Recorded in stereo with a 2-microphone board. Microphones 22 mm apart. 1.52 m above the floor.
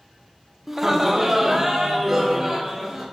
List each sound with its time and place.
0.7 s laughter: 10° right (ahead or behind), 0.6 m